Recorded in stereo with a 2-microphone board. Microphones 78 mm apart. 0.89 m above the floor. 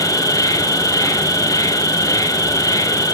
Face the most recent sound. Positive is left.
turn(degrees=50)  # may be behind; listen again after turning